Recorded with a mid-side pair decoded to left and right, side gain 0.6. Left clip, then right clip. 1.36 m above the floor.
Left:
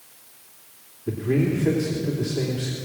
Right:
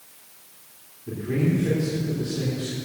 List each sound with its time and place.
1.1 s a man speaking: 35° left, 3.5 m